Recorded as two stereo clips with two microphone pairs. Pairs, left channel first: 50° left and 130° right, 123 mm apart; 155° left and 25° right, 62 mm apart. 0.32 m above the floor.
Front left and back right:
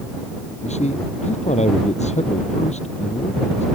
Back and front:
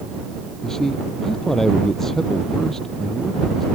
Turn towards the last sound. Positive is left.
turn(degrees=75)